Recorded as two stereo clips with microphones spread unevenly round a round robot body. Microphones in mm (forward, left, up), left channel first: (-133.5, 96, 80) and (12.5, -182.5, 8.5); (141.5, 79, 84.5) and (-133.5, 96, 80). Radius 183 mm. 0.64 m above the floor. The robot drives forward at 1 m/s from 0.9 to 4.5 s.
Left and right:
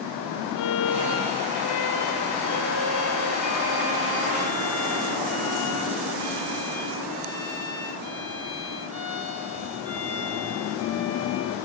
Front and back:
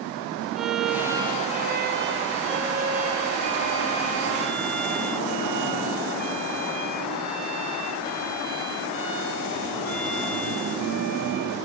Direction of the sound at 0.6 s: 90° left.